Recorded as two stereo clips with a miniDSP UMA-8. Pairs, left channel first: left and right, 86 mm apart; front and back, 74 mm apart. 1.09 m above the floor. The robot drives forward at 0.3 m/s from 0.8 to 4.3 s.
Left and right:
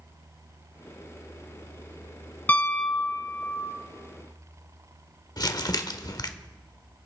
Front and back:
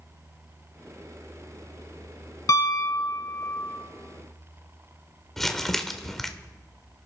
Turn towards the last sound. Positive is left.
turn(degrees=85)